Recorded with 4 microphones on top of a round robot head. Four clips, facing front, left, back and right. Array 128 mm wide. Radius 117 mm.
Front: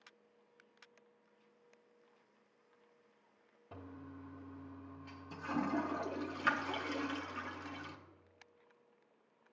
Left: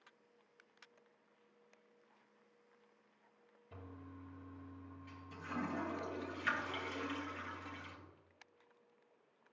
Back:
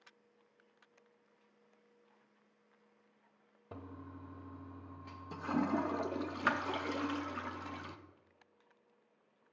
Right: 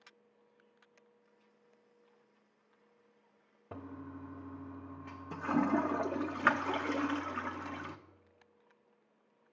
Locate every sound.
3.7 s a toilet flushing: 110° right, 0.5 m